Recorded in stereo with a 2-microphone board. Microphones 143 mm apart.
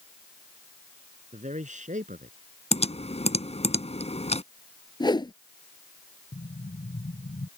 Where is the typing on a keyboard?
50° left (ahead or behind).